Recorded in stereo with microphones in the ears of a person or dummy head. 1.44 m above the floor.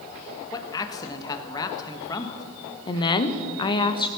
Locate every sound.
0.5 s a man speaking: 20° left (ahead or behind), 1.4 m
2.9 s a woman speaking: 30° left (ahead or behind), 1.0 m